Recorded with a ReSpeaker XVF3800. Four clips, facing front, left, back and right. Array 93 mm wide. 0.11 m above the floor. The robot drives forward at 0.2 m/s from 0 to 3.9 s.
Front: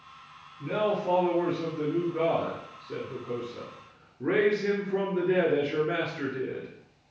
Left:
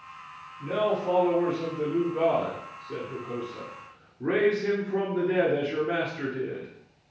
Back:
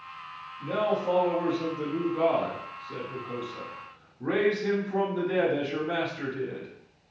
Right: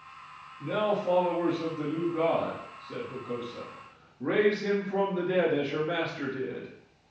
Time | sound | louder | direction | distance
0.6 | a man speaking | left 2 dB, even | 20° left | 1.8 m